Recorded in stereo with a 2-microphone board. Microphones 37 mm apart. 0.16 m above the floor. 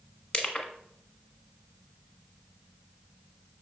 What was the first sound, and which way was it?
Crushing, 30° left (ahead or behind).